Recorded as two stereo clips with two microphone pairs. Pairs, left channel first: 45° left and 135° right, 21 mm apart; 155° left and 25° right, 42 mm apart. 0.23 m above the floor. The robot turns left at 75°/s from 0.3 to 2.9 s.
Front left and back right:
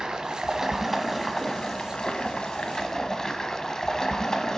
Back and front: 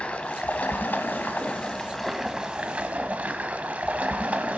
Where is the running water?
160° right, 0.9 m; by 4.6 s 5° left, 0.9 m.